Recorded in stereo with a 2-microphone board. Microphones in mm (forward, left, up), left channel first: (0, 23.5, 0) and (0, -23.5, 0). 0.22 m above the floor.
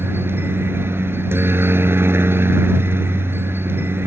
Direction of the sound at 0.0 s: 55° right (ahead or behind).